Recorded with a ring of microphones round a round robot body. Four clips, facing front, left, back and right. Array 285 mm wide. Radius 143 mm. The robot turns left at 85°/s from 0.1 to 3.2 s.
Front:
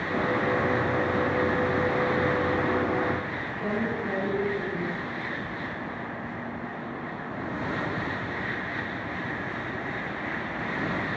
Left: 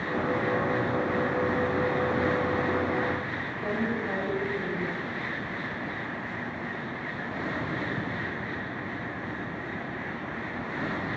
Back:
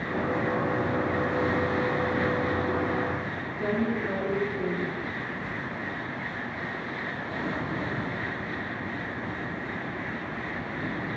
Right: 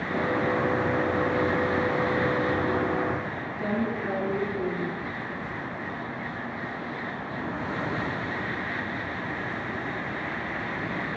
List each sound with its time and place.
3.6 s a woman speaking: 150° right, 6 m